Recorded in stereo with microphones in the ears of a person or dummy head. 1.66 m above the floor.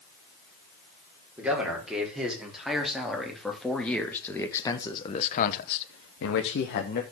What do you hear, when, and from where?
1.4 s a man speaking: 10° right (ahead or behind), 5 m; by 7.0 s 55° left (ahead or behind), 1.6 m